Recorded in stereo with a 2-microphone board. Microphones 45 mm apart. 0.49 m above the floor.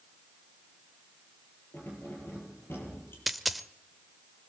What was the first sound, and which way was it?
Keys jangling, 55° left (ahead or behind).